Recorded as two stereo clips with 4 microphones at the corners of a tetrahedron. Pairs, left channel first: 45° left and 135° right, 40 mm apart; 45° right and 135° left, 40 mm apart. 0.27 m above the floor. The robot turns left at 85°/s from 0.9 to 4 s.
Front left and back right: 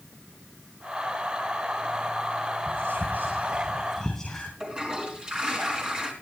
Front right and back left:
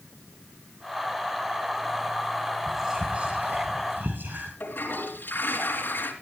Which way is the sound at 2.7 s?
125° right.